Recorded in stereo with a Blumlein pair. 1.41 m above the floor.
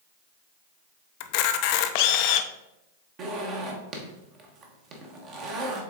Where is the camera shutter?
45° left, 0.5 m.